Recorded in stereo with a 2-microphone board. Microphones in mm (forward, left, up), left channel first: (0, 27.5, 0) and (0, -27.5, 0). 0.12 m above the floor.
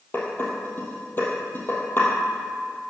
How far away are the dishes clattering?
About 2.5 m.